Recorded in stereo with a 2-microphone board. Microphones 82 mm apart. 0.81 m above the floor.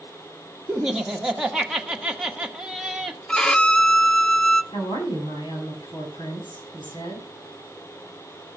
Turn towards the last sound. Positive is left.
turn(degrees=75)  # may be behind; listen again after turning